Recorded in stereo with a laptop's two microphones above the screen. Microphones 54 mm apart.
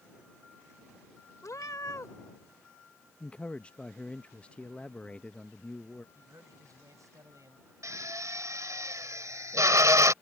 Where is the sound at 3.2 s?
20° left (ahead or behind).